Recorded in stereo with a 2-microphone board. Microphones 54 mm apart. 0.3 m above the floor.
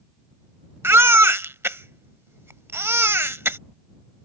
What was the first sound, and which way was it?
A baby crying, 50° right (ahead or behind).